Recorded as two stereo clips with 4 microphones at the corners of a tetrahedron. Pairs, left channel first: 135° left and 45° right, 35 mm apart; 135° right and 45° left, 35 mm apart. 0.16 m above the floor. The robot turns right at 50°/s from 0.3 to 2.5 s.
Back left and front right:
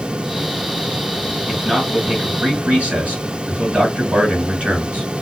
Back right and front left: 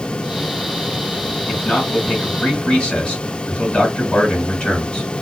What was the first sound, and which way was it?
A man speaking, 135° right.